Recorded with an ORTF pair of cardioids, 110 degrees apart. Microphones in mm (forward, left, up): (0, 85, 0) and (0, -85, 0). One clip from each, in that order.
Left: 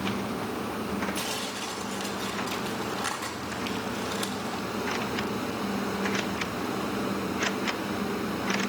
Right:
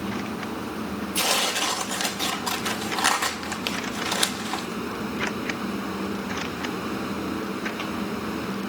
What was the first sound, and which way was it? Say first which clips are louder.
A fan: even; 15° right.